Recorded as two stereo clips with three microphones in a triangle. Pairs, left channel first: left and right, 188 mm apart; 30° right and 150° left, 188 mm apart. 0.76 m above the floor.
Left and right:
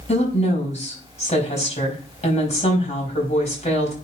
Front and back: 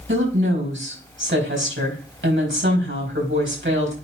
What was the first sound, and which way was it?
A woman speaking, 145° left.